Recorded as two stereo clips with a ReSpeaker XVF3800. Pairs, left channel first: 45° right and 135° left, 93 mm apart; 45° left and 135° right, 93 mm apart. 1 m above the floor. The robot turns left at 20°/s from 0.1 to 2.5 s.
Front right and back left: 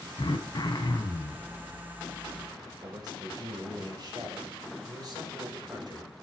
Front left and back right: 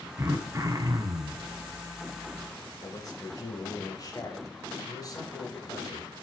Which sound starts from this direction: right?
Throat clearing, at 0.2 s.